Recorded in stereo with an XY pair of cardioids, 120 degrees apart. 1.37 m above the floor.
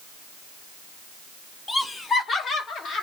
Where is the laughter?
20° left, 1.2 m; by 3.0 s 65° left, 1.9 m.